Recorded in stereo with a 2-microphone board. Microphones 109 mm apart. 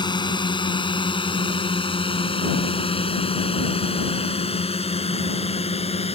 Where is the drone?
40° left (ahead or behind); by 6.2 s 65° left (ahead or behind).